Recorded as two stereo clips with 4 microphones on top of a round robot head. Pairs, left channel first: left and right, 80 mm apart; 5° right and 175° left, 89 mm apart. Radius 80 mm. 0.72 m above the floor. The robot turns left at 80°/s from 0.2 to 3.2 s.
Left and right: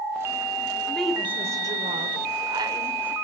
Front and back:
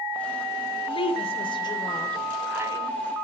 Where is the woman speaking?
15° left, 3 m; by 3.1 s 165° right, 3 m.